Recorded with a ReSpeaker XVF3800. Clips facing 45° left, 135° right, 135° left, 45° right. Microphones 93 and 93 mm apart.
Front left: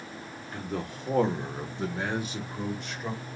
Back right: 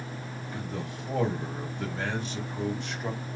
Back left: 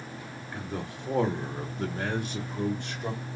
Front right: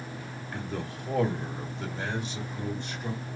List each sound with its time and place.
0.5 s a man speaking: 55° left, 1.6 m; by 3.2 s 140° left, 2 m